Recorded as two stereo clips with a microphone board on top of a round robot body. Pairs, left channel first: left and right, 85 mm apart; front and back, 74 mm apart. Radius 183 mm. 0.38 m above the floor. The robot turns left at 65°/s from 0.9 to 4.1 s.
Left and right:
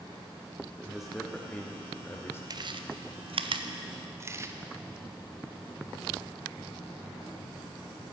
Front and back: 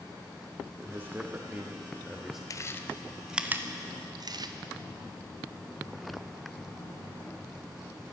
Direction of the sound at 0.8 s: 170° right.